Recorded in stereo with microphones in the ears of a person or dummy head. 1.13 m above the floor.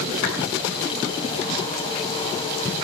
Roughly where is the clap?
Left.